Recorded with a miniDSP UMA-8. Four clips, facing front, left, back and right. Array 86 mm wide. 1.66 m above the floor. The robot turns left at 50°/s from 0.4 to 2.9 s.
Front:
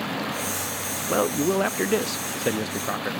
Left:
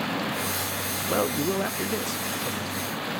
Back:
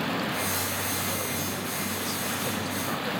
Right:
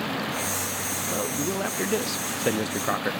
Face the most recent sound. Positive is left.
turn(degrees=-65)